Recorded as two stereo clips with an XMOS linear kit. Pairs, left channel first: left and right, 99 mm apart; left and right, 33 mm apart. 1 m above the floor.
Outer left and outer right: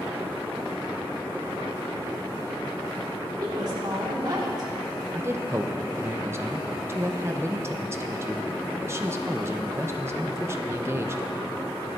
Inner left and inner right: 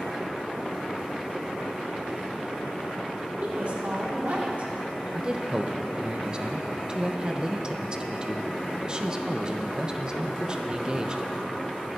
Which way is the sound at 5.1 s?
25° right (ahead or behind).